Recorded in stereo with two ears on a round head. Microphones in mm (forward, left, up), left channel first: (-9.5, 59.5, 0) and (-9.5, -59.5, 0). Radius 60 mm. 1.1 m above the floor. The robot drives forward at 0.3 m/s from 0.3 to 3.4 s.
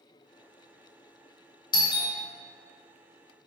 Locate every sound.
1.7 s a doorbell: 30° left (ahead or behind), 0.5 m